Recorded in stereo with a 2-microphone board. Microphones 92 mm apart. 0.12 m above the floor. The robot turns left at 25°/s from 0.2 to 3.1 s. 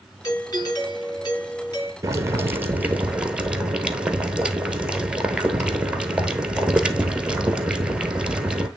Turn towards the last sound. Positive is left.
turn(degrees=-10)  # may be behind; listen again after turning